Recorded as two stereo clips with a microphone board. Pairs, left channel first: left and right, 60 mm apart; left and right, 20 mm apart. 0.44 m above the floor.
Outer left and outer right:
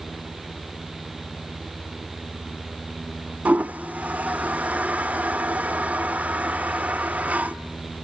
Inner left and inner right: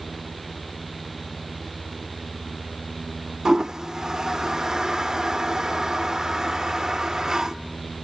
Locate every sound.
3.5 s a toilet flushing: 25° right (ahead or behind), 0.7 m